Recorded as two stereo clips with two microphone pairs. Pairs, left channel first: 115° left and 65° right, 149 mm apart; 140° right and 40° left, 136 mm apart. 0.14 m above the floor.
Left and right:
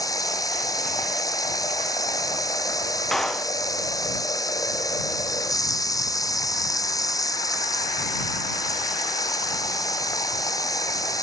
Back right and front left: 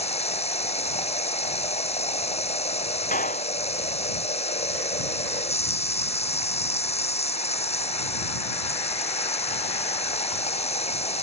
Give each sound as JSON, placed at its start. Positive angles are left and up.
{"t": 0.0, "sound": "running water", "azimuth_deg": 180}
{"t": 3.1, "sound": "a clap", "azimuth_deg": -160}